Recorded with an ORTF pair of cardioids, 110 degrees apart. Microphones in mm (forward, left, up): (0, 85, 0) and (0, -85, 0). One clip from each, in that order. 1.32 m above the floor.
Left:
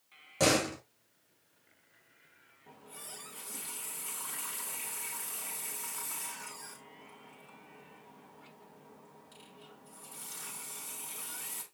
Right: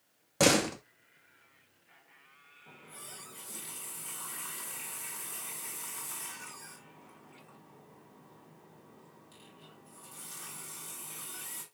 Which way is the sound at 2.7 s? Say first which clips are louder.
Left 1 dB; 5° left.